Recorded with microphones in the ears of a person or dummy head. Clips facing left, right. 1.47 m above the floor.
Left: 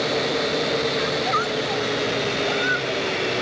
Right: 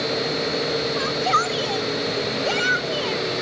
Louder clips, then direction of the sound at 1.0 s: Even; 50° right (ahead or behind).